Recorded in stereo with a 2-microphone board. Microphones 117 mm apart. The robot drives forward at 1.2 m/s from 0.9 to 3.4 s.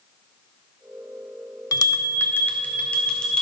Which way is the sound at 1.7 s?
35° left (ahead or behind).